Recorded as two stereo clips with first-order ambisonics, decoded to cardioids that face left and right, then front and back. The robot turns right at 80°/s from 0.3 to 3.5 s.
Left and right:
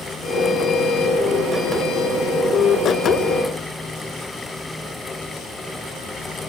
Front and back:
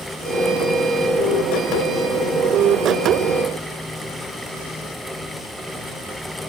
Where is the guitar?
No guitar in this recording.